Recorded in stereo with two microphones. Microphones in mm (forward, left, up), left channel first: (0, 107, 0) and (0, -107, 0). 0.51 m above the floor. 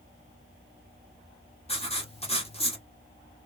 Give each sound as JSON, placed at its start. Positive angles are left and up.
{"t": 1.7, "sound": "writing", "side_deg": 25, "distance_m": 1.2}